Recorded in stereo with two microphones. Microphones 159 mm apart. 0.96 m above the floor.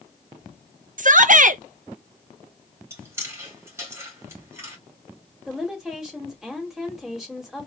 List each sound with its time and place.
1.0 s a shout: 55° right (ahead or behind), 0.6 m
2.9 s chewing: 15° right (ahead or behind), 2.5 m
5.5 s a woman speaking: 5° right (ahead or behind), 2 m